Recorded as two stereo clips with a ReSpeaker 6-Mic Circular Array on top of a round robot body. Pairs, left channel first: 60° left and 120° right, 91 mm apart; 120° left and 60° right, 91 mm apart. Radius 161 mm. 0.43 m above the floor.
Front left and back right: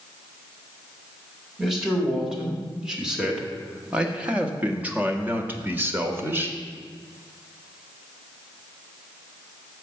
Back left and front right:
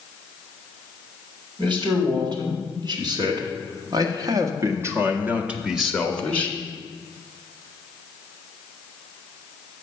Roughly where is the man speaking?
Ahead right.